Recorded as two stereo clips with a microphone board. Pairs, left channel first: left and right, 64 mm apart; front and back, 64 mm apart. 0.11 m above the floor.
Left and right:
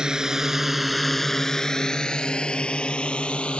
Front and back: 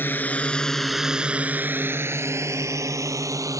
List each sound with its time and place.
0.0 s a drone: 20° right; by 3.6 s 160° left